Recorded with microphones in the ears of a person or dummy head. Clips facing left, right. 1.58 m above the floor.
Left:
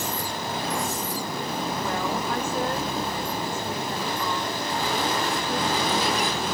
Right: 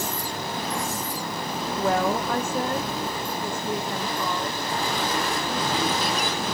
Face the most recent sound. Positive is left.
turn(degrees=-90)